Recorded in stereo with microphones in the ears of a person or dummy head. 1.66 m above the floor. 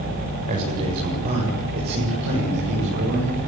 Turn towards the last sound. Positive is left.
turn(degrees=-75)  # may be behind; listen again after turning